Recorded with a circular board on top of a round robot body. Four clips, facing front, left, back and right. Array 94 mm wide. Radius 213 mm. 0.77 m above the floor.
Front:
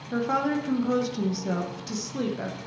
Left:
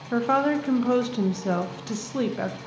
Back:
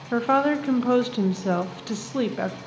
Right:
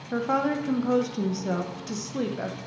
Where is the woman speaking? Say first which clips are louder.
Left 3 dB, back 5 dB; 155° left, 1.1 m.